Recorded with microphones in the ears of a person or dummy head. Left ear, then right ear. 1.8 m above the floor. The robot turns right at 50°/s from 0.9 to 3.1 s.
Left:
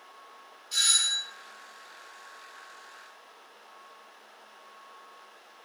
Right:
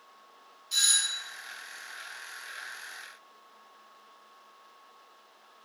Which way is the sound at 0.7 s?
15° right (ahead or behind).